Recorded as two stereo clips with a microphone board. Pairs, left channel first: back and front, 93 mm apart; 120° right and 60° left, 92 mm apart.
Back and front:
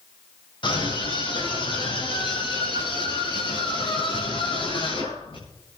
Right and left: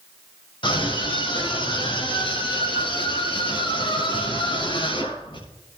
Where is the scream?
150° right, 5 m; by 5.4 s 155° right, 8 m.